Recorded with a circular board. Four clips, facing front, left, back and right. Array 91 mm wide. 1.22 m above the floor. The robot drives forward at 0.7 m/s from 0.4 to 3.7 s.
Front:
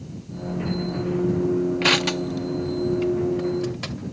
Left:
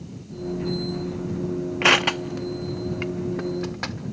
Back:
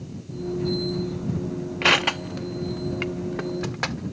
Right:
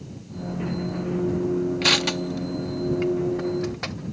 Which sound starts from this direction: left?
Crushing, at 1.8 s.